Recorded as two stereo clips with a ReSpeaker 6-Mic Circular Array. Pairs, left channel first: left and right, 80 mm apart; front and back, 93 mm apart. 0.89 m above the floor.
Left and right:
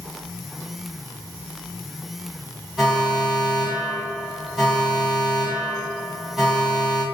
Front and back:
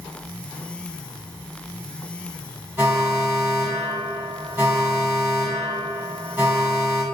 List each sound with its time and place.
2.8 s an alarm: 175° right, 1.3 m